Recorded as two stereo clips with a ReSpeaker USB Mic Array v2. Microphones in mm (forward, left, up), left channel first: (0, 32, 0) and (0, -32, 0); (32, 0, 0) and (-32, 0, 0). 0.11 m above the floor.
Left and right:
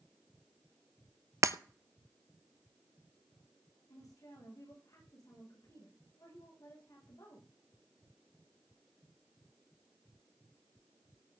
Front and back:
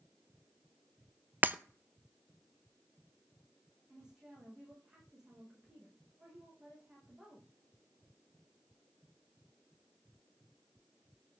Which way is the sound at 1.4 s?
120° right.